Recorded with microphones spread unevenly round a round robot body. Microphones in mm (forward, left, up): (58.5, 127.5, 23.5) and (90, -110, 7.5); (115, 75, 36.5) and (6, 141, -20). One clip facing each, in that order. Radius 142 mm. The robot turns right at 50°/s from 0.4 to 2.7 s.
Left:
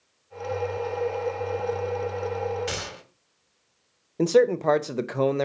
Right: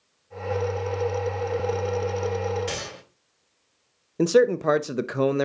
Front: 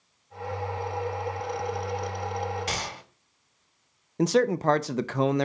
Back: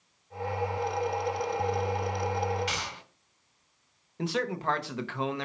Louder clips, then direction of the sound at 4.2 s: Right 1 dB, front 9 dB; 45° right.